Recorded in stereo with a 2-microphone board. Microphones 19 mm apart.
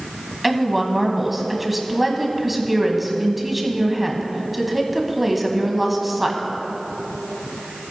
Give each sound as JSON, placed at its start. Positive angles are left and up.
{"t": 0.4, "sound": "a woman speaking", "side_deg": -5, "distance_m": 1.3}